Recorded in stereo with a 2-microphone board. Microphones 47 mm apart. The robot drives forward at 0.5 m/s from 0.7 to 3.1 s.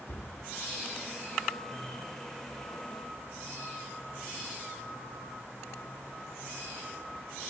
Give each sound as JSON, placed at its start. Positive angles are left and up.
{"t": 0.1, "sound": "a cupboard door", "side_deg": 60, "distance_m": 1.6}